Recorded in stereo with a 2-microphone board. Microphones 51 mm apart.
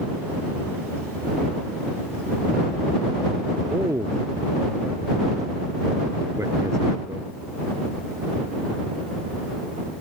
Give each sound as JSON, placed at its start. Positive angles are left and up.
{"t": 3.7, "sound": "a man speaking", "side_deg": -80}